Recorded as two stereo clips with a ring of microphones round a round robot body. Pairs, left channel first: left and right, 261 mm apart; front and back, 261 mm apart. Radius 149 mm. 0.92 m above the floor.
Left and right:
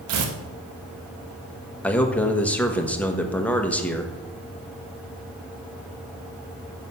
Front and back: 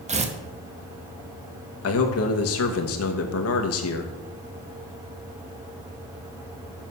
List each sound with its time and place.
0.1 s tearing paper: 115° right, 1.1 m
1.8 s a man speaking: 5° left, 1.3 m